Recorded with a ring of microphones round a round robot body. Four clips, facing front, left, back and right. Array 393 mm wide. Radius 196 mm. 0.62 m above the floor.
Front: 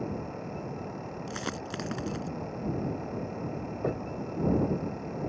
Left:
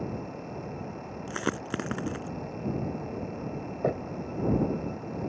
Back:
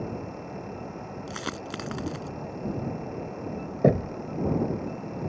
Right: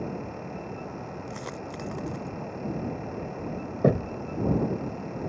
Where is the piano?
No piano in this recording.